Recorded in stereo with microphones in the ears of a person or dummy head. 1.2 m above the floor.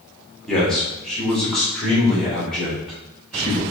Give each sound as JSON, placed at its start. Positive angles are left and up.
{"t": 0.5, "sound": "a man speaking", "side_deg": 5, "distance_m": 3.0}